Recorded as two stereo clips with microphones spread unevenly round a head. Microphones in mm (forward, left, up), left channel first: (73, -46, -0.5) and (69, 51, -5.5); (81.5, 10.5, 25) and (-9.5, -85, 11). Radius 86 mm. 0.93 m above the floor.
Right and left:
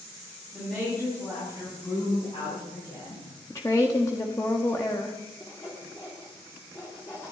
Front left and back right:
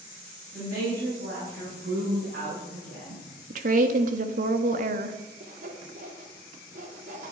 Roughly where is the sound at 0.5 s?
Behind.